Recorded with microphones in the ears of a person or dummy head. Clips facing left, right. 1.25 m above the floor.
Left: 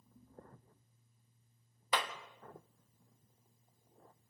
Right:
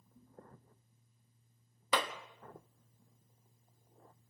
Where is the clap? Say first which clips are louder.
Right 3 dB; 75° right (ahead or behind), 1.4 m.